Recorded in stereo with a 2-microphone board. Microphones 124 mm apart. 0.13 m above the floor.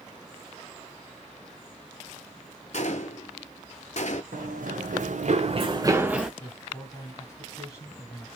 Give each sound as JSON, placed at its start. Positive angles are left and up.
{"t": 2.7, "sound": "a gunshot", "side_deg": 60, "distance_m": 0.6}
{"t": 4.3, "sound": "running footsteps", "side_deg": -85, "distance_m": 1.1}
{"t": 6.4, "sound": "a man speaking", "side_deg": 20, "distance_m": 2.0}